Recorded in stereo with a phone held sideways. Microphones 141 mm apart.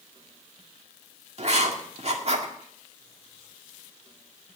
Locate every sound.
1.4 s writing: 50° right (ahead or behind), 2.0 m